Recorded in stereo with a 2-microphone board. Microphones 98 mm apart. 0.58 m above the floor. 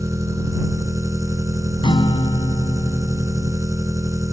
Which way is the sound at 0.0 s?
35° right (ahead or behind).